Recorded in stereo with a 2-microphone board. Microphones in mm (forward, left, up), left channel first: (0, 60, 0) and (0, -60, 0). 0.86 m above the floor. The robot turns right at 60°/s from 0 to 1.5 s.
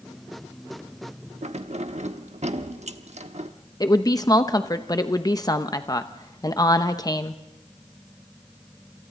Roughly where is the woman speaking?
Left.